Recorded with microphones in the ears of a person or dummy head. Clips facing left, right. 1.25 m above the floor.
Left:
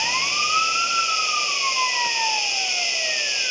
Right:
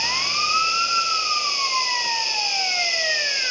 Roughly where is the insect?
Left.